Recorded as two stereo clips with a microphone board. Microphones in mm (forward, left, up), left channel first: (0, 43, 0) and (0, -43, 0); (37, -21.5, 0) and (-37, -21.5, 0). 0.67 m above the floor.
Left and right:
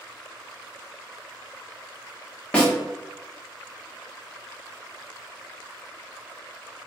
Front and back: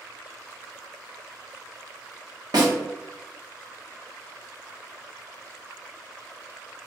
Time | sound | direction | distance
2.5 | a snare drum | 165° left | 1.1 m